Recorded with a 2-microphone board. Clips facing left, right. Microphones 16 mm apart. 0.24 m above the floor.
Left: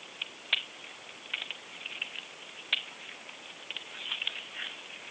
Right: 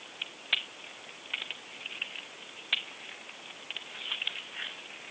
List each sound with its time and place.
Only background noise.